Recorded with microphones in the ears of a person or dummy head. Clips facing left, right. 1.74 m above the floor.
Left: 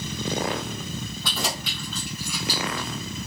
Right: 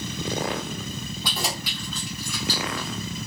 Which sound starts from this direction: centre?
Keys jangling, at 1.2 s.